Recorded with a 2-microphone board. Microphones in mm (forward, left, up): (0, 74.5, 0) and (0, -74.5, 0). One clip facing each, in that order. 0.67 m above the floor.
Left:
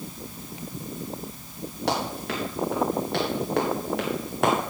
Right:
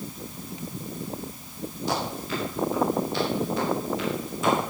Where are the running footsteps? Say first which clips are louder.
Left 2 dB; 85° left, 7 m; by 4.5 s 70° left (ahead or behind), 4 m.